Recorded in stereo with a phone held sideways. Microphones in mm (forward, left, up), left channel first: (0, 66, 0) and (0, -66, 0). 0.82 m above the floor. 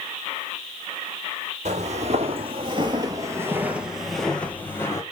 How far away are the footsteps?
About 1.7 m.